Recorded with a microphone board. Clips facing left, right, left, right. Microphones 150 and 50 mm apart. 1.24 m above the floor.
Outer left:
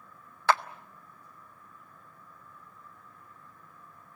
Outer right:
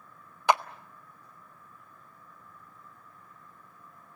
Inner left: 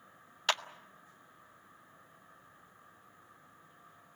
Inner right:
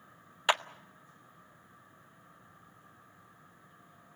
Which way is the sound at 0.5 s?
15° right (ahead or behind).